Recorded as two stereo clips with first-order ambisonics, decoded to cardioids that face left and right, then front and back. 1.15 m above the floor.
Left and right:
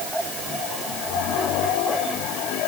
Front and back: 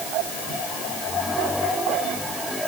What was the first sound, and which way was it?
Only background noise.